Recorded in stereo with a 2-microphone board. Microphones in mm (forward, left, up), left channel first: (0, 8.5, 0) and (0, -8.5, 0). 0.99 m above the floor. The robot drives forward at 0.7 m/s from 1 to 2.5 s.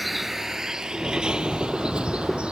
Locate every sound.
0.0 s a vehicle: 5° right (ahead or behind); by 2.5 s 65° right (ahead or behind)